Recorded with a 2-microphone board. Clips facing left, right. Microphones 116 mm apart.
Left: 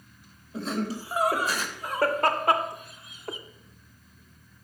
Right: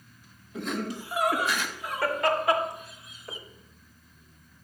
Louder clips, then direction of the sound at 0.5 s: Left 2 dB; 35° left (ahead or behind).